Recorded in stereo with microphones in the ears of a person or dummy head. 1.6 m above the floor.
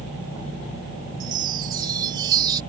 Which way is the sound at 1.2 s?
20° right (ahead or behind).